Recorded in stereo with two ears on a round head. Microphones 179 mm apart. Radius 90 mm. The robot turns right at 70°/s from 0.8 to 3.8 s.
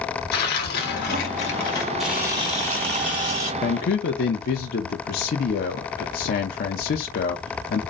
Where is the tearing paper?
90° left, 1.7 m; by 1.9 s 165° left, 1.7 m.